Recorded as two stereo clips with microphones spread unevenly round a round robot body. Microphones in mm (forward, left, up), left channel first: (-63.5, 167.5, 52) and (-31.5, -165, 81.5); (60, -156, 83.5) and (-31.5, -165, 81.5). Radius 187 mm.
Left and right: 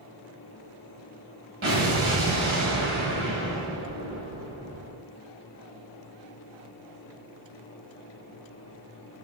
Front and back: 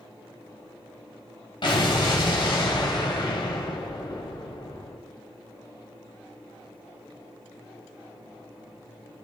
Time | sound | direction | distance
1.6 | an explosion | 25° right | 2.0 m